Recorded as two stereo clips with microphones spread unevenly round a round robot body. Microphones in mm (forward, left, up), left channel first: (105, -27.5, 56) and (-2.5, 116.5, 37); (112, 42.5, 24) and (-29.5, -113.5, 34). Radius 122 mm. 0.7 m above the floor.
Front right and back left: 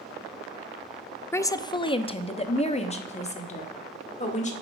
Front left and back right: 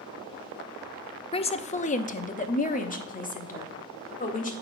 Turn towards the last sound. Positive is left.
turn(degrees=0)